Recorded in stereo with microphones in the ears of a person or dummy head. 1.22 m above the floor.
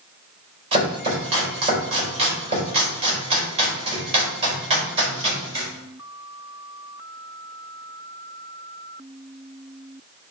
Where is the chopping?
40° right (ahead or behind), 5 m.